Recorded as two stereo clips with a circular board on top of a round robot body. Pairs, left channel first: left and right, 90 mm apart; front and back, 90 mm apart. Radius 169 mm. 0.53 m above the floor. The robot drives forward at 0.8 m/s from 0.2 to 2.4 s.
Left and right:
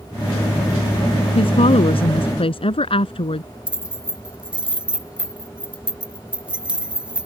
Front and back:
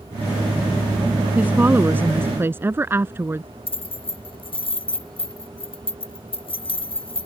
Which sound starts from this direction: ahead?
Keys jangling, at 3.7 s.